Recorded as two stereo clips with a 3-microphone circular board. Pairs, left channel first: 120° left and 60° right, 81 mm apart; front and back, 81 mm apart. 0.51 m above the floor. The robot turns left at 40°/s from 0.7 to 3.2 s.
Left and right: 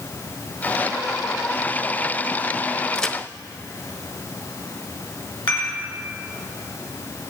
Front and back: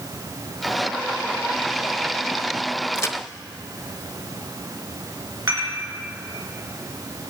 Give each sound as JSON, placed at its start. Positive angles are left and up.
{"t": 3.0, "sound": "a crack", "azimuth_deg": 40, "distance_m": 0.5}
{"t": 5.5, "sound": "dishes clattering", "azimuth_deg": 130, "distance_m": 4.0}